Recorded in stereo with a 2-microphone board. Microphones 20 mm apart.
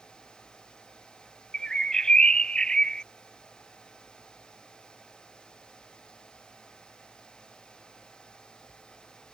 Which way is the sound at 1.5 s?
45° left (ahead or behind).